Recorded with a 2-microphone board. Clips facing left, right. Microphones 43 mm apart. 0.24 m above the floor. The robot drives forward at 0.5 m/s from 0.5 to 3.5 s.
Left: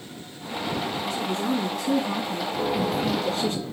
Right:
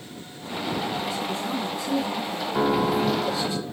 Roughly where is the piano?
Right.